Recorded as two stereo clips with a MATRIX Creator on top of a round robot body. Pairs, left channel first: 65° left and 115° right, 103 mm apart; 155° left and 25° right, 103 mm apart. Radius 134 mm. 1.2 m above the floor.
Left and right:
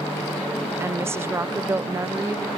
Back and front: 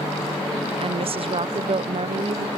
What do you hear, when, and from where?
0.8 s a woman speaking: 45° right